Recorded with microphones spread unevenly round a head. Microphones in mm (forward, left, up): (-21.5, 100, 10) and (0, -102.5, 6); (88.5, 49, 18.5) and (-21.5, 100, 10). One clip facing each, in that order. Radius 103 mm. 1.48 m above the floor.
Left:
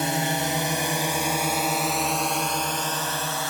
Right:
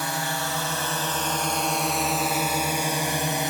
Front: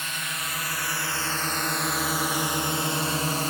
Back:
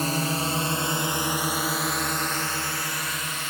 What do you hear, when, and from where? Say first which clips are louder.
0.0 s a drone: left 5 dB, back 10 dB; 155° left; by 3.5 s 30° right